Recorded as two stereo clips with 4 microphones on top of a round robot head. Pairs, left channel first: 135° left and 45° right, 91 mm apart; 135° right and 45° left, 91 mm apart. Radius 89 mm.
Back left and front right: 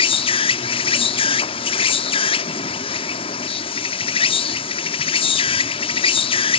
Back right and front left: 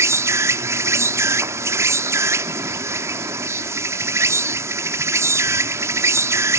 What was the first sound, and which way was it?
An insect, 105° left.